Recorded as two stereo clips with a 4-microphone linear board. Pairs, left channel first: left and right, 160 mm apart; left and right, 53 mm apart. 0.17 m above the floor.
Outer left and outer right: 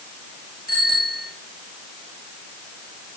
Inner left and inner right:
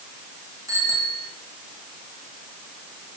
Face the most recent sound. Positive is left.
turn(degrees=-75)  # may be behind; listen again after turning